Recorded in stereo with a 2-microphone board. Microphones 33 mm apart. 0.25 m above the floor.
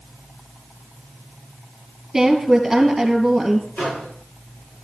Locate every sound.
2.1 s a woman speaking: 15° right (ahead or behind), 2.5 m
3.8 s a microwave: 45° left (ahead or behind), 6 m